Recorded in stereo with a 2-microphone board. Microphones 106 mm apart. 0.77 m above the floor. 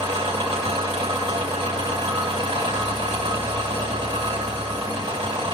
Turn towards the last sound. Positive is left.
turn(degrees=-85)